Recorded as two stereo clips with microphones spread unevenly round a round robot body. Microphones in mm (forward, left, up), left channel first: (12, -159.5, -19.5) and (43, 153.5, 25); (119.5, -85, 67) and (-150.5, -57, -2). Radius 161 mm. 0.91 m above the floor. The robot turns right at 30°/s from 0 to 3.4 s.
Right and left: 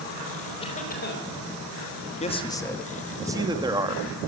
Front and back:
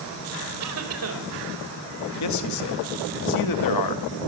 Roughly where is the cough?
Behind.